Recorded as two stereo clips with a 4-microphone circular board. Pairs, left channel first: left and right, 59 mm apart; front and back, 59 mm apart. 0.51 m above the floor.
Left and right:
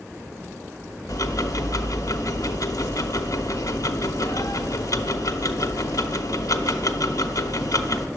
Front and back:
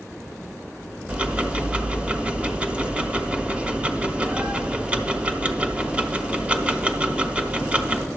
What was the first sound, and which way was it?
Ticking, 110° left.